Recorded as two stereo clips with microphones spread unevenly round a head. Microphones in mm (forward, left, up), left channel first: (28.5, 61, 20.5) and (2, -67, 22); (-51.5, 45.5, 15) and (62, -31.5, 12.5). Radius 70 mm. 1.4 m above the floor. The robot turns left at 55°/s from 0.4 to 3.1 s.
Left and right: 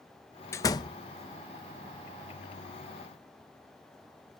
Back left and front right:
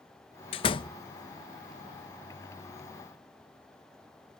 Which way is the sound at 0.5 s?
140° left.